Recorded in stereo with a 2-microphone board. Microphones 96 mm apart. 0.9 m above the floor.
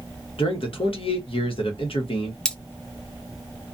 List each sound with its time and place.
0.4 s a man speaking: 70° left (ahead or behind), 1.1 m
2.5 s cutlery clinking: 10° left (ahead or behind), 0.6 m